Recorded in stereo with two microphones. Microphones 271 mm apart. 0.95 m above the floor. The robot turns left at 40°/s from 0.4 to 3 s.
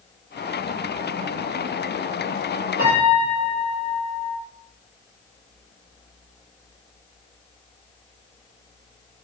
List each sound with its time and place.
2.8 s a piano: 50° left (ahead or behind), 2.5 m; by 4.4 s 55° left (ahead or behind), 2.5 m